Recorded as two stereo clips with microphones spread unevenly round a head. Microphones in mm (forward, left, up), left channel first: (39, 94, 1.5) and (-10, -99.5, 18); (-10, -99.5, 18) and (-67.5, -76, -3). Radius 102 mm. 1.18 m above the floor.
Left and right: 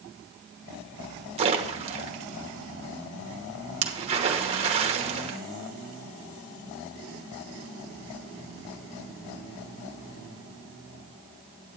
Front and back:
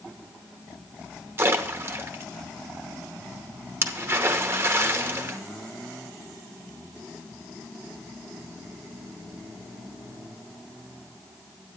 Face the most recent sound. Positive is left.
turn(degrees=-165)